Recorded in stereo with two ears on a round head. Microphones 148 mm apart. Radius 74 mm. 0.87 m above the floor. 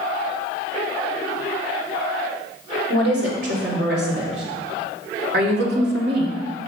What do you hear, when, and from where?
2.9 s a woman speaking: 75° right (ahead or behind), 4 m; by 6.4 s 65° right (ahead or behind), 2 m